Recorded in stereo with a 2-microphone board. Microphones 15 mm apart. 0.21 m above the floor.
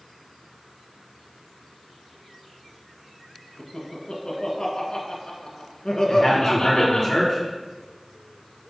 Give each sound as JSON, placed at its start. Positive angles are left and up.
{"t": 3.6, "sound": "laughter", "side_deg": 60, "distance_m": 2.0}
{"t": 6.1, "sound": "a man speaking", "side_deg": 40, "distance_m": 3.0}